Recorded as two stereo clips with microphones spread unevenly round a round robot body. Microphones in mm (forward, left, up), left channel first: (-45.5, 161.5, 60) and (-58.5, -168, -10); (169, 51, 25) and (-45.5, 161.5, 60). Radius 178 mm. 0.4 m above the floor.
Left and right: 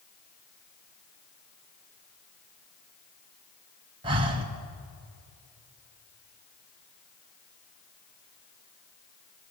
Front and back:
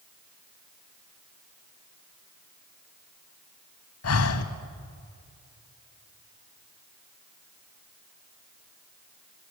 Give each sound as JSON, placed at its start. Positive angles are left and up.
{"t": 4.0, "sound": "breathing", "azimuth_deg": -20, "distance_m": 1.7}